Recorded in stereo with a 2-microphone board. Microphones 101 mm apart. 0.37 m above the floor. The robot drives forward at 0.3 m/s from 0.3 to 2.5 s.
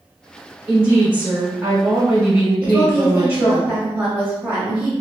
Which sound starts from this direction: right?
A woman speaking, at 0.7 s.